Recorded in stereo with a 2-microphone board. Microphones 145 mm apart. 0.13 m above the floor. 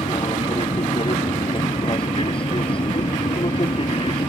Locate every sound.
0.0 s an aircraft: 35° left (ahead or behind)